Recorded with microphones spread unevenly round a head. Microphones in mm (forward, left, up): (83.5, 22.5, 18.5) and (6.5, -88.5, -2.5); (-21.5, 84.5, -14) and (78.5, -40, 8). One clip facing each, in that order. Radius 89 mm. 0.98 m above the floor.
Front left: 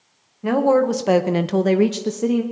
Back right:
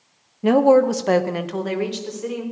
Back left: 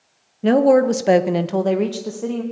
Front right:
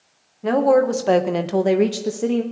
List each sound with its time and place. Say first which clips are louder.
0.4 s a woman speaking: back right 3 dB, back left 3 dB; straight behind, 0.8 m; by 2.4 s 20° left, 1.0 m